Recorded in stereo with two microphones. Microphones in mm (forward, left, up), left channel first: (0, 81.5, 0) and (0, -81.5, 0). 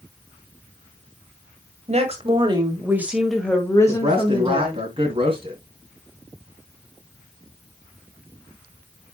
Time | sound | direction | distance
1.9 | a woman speaking | 45° right (ahead or behind) | 2.0 m
3.9 | a man speaking | 35° right (ahead or behind) | 2.5 m